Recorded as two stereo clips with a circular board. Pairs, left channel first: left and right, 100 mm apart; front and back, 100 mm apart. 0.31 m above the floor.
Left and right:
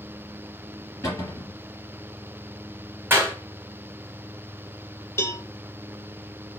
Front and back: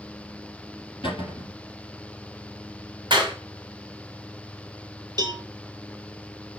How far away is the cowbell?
About 0.6 m.